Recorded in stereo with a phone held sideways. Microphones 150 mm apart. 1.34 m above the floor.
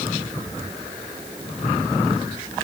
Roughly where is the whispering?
I don't hear whispering.